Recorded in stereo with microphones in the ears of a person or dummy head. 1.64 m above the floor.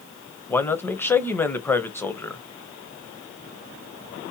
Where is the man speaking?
15° left (ahead or behind), 0.6 m.